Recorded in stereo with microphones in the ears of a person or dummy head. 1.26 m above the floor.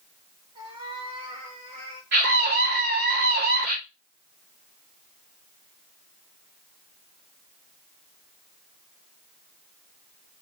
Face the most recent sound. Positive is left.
turn(degrees=-50)  # may be behind; listen again after turning